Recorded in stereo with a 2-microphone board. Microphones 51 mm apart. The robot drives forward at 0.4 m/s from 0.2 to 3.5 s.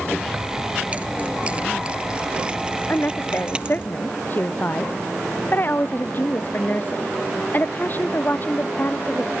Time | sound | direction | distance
0.3 | keys jangling | 30° right (ahead or behind) | ?
2.9 | a woman speaking | 40° left (ahead or behind) | ?